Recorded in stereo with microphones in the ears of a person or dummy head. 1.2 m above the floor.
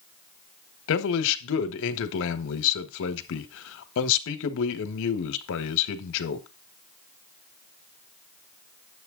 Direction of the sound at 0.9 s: 75° left (ahead or behind).